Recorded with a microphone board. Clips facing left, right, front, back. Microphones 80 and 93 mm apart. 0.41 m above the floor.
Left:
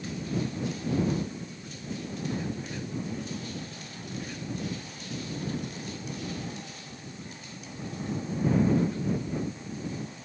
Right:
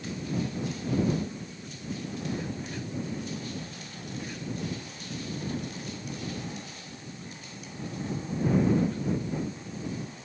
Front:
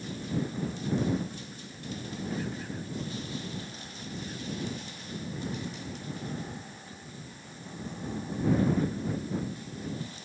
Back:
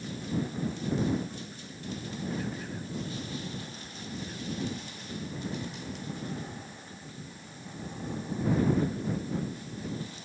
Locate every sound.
Only background noise.